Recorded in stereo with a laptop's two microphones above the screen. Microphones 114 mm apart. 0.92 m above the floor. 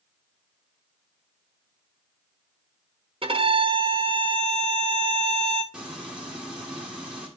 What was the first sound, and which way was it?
A violin, 55° right (ahead or behind).